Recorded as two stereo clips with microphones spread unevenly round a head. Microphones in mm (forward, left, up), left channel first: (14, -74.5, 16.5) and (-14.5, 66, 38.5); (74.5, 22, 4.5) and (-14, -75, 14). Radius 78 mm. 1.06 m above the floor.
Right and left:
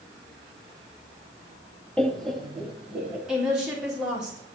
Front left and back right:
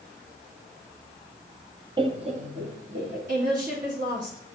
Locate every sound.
2.0 s laughter: 135° right, 0.6 m; by 3.2 s 170° right, 1.6 m
3.3 s a woman speaking: 170° right, 2.5 m